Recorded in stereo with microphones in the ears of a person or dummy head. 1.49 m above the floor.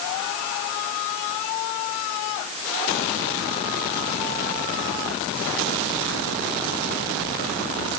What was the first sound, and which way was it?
Only background noise.